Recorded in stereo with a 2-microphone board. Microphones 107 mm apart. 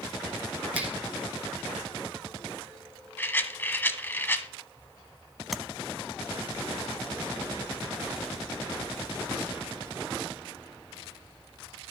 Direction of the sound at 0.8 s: 15° right (ahead or behind).